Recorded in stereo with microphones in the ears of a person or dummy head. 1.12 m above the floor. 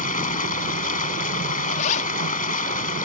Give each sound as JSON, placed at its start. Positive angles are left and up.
{"t": 0.0, "sound": "running water", "side_deg": 40}
{"t": 1.7, "sound": "a zipper", "side_deg": 40}